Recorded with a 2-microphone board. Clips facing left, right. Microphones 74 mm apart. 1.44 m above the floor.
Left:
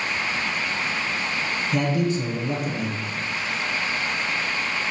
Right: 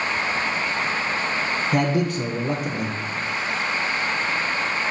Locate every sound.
1.7 s a man speaking: 55° right (ahead or behind), 1.2 m